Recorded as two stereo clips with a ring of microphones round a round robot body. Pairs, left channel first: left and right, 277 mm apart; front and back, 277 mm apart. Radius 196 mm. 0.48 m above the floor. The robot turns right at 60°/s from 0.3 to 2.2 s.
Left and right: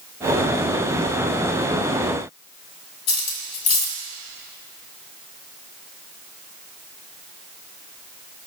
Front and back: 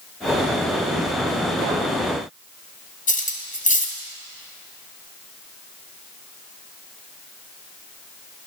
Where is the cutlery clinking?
60° left, 2 m.